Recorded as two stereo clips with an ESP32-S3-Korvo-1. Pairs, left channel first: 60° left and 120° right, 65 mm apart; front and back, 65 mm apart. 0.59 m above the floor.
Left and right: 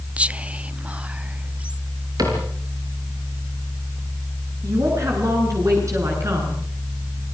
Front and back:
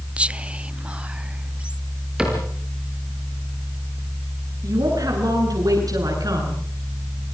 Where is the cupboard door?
100° right, 7 m.